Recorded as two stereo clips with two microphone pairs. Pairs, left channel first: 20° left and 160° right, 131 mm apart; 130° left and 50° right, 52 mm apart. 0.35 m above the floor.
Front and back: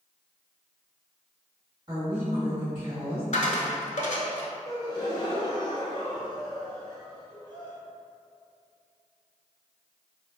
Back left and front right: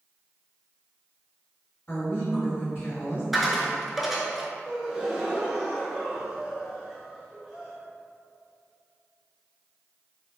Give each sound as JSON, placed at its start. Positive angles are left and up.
{"t": 1.9, "sound": "a woman speaking", "azimuth_deg": 150, "distance_m": 1.6}
{"t": 3.3, "sound": "a dropped coin", "azimuth_deg": 35, "distance_m": 0.5}
{"t": 4.7, "sound": "a gasp", "azimuth_deg": 20, "distance_m": 0.7}